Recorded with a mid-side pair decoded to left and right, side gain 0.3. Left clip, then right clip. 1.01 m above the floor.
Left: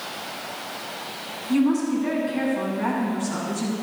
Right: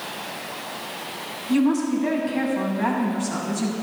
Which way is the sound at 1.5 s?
40° right.